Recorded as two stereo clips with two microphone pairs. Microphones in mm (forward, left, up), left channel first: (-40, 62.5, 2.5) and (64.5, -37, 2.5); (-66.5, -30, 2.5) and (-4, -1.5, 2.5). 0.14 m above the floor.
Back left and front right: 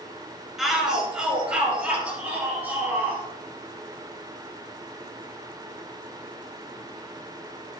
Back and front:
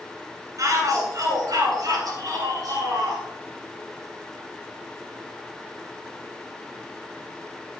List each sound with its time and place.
0.6 s a shout: 45° left, 2.5 m; by 3.2 s 30° left, 4 m